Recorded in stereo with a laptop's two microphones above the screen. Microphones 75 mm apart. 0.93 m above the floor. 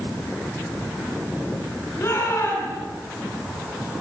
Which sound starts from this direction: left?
A shout, at 2.0 s.